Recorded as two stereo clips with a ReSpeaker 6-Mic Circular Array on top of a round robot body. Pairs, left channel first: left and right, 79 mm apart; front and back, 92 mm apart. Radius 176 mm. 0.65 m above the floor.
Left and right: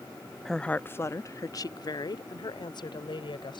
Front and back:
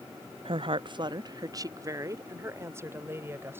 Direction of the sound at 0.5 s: 175° left.